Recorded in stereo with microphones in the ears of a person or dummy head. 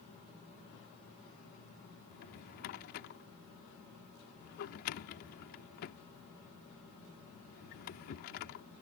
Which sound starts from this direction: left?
A drawer, at 2.1 s.